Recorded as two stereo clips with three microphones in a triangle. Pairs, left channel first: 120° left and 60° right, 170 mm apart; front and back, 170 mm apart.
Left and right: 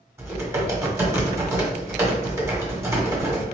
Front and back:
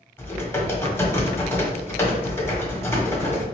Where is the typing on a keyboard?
35° right, 1.4 m.